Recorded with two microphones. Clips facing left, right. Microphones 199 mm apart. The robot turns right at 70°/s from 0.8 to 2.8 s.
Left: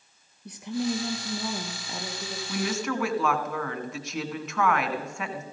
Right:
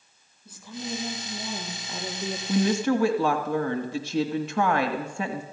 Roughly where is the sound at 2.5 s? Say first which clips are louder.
Right 7 dB; right.